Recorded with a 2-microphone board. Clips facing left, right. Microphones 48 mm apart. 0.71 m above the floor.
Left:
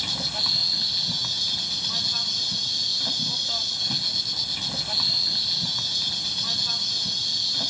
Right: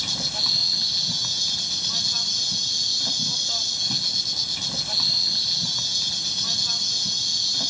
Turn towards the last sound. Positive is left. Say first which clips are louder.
# even
turn(degrees=10)  # may be behind; listen again after turning